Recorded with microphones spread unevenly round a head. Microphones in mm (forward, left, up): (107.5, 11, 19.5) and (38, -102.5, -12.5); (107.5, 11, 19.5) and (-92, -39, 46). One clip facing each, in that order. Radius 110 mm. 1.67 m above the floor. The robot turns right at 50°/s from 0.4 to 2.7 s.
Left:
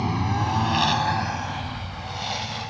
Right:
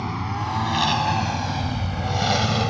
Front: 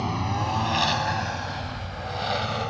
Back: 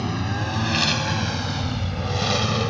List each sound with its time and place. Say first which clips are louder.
0.0 s a lawn mower: left 3 dB, back 2 dB; 125° left; by 2.7 s 160° right